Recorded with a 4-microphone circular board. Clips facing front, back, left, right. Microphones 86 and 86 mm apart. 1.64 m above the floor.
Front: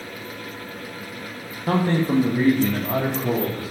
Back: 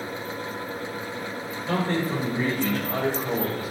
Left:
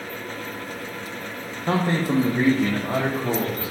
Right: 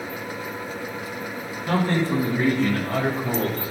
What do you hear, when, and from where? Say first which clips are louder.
1.7 s a man speaking: front 5 dB, even; 35° left, 1.8 m; by 3.7 s 30° left, 4 m